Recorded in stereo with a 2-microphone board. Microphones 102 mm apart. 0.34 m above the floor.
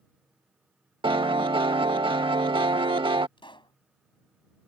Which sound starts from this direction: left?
A pop, at 3.4 s.